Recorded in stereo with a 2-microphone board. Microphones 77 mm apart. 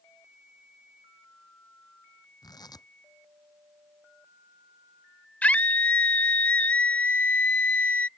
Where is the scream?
20° left (ahead or behind).